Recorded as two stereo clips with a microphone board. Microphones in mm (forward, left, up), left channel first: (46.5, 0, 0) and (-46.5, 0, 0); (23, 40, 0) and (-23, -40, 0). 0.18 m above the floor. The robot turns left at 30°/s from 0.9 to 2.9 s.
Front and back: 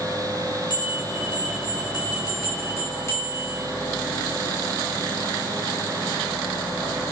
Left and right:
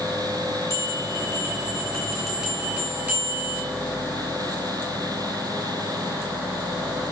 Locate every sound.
0.7 s a bell: 10° left, 3.5 m; by 3.6 s 50° right, 3.5 m